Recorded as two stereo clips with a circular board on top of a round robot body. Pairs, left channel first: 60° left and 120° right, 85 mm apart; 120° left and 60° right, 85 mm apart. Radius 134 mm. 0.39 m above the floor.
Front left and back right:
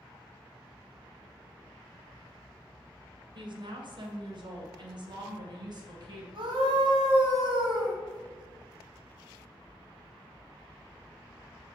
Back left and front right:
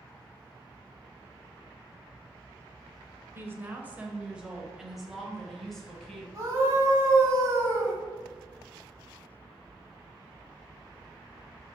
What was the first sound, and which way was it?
A woman speaking, 120° right.